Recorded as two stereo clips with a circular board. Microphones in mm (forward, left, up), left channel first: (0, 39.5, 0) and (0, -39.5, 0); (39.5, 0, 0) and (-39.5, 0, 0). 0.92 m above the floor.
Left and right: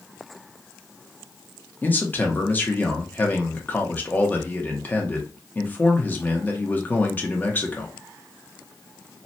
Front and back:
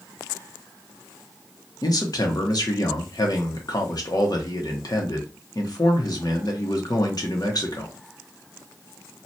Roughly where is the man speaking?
Ahead left.